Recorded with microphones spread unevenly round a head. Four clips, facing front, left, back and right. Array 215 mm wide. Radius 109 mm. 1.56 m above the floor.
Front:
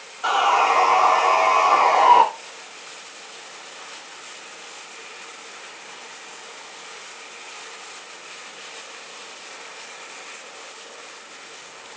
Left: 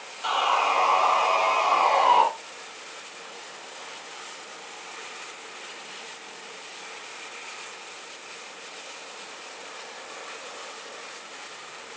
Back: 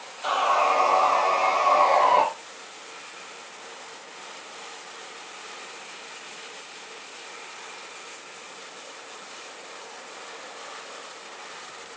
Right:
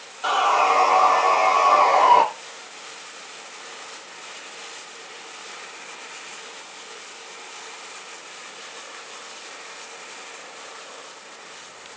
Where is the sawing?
30° right, 3 m.